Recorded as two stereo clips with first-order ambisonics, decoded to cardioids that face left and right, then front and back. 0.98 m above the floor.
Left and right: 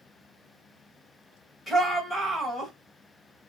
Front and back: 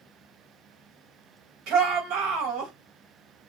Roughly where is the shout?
Behind.